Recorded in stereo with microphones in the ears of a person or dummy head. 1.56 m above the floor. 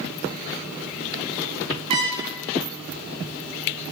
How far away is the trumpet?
About 0.7 m.